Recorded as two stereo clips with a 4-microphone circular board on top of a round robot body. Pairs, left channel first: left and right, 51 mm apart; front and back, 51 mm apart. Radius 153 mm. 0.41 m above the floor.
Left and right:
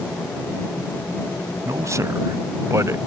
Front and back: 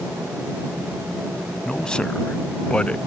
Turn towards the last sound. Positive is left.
turn(degrees=-70)